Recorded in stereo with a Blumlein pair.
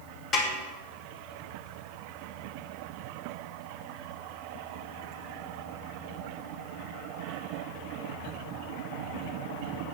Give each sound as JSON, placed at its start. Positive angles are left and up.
{"t": 0.3, "sound": "a snare drum", "azimuth_deg": 20, "distance_m": 2.5}